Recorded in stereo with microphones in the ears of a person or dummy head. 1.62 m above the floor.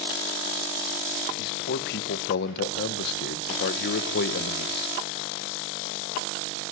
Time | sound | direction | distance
1.4 | a man speaking | 60° left (ahead or behind) | 1.5 m